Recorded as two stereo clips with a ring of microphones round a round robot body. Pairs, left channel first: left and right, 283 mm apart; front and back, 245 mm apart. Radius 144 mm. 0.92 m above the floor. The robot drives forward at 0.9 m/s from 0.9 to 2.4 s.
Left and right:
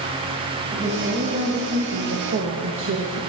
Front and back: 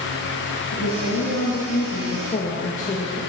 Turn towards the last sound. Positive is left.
turn(degrees=-55)